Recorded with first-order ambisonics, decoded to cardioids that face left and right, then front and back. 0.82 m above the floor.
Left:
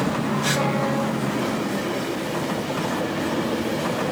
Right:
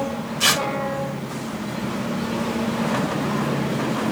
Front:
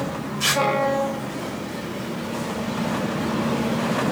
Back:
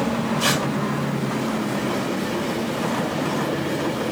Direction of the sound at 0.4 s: 85° right.